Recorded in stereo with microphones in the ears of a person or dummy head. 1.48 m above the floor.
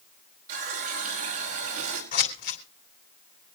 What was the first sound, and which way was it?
A running tap, 45° right (ahead or behind).